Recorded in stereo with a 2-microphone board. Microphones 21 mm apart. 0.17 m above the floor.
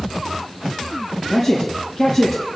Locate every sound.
1.3 s a man speaking: centre (ahead or behind), 4 m